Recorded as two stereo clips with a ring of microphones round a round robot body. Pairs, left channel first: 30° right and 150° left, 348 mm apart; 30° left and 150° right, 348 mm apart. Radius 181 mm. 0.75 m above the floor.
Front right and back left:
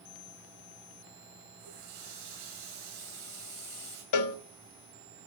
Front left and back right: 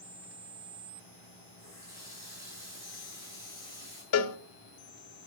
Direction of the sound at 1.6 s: 130° left.